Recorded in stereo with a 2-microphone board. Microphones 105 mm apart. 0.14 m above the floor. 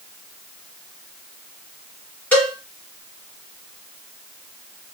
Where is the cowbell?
15° left (ahead or behind), 2.5 m.